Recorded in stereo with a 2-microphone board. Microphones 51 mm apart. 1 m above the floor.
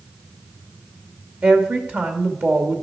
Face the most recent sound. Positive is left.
turn(degrees=-40)  # may be behind; listen again after turning